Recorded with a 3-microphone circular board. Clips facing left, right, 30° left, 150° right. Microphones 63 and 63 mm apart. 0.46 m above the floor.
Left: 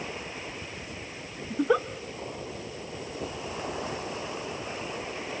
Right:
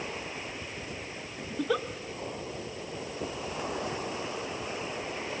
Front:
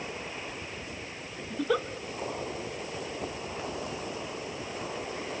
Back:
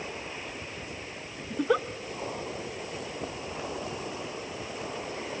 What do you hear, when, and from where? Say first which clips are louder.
1.5 s a giggle: left 5 dB, back 2 dB; 145° left, 0.7 m